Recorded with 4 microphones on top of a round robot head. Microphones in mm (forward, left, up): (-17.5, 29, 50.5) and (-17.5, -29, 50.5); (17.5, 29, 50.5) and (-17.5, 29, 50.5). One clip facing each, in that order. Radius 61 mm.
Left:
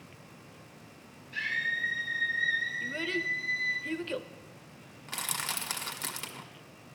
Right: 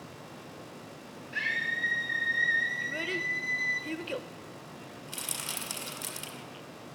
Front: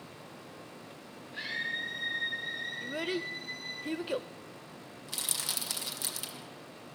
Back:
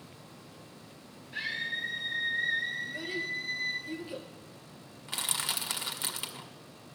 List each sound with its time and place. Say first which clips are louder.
1.3 s a scream: right 1 dB, back 1 dB; 145° right, 3.5 m; by 3.8 s 170° right, 1.9 m
2.8 s a child speaking: even, front 1 dB; 5° right, 0.7 m
5.1 s crushing: left 5 dB, back 4 dB; 125° left, 1.9 m